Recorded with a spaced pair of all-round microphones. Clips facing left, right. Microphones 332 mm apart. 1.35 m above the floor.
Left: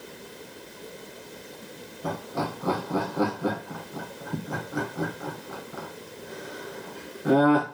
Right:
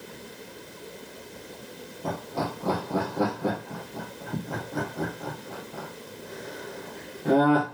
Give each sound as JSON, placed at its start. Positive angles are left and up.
{"t": 2.0, "sound": "laughter", "side_deg": 5, "distance_m": 1.4}